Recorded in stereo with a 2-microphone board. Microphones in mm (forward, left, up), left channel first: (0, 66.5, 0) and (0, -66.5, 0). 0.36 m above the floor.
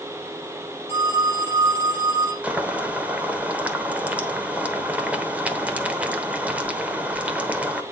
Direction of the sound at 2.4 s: 10° right (ahead or behind).